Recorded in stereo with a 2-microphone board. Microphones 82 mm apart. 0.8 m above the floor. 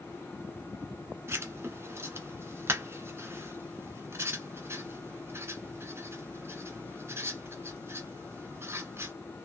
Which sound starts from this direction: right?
Writing, at 1.3 s.